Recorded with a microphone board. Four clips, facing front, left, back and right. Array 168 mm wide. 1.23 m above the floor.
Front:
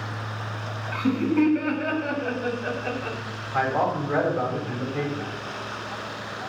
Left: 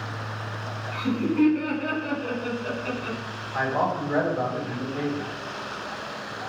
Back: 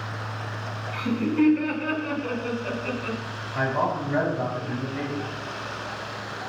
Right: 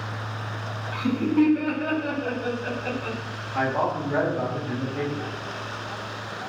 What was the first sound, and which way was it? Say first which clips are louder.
Laughter: right 2 dB, front 2 dB; 25° right.